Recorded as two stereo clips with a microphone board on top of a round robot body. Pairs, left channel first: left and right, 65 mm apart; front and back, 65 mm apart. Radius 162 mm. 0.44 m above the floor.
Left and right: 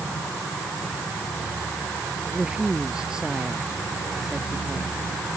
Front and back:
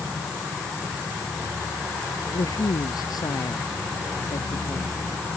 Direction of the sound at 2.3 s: 15° right.